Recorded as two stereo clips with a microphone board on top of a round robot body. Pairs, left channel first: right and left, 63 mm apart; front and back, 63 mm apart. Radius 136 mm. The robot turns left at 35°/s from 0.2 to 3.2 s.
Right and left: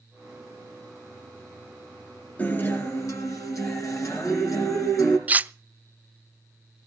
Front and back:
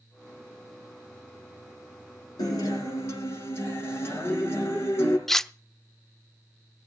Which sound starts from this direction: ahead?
A guitar, at 2.4 s.